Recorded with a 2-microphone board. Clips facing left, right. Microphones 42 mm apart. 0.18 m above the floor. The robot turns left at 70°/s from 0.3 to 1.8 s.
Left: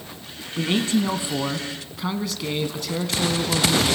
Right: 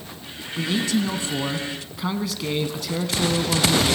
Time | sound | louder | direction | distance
0.6 | a man speaking | left 1 dB | 85° left | 1.3 m